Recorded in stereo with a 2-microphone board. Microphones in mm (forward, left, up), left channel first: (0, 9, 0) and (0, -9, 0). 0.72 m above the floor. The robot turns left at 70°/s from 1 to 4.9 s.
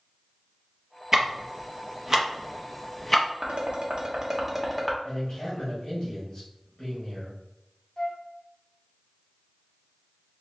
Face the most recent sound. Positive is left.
turn(degrees=50)  # may be behind; listen again after turning